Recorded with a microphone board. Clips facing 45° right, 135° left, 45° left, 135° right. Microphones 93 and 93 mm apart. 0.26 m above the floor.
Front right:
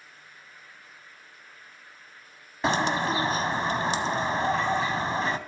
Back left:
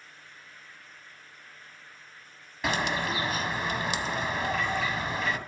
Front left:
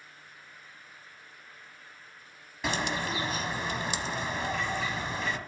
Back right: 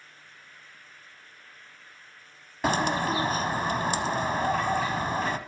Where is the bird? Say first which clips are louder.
Front right 4 dB, back right 6 dB; 100° right, 1.1 m.